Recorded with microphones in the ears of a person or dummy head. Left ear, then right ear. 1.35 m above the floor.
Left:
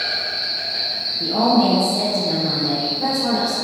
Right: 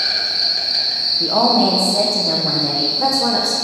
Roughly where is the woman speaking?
Right.